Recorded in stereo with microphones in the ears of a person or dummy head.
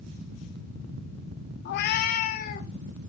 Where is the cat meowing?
60° left (ahead or behind), 1.0 m; by 2.7 s 40° left (ahead or behind), 1.5 m.